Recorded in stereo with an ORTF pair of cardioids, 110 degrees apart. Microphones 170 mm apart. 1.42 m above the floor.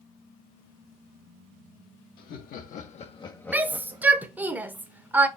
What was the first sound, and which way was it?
Laughter, 65° left.